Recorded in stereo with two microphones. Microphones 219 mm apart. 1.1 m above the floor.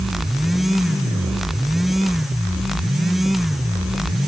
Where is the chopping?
No chopping in this recording.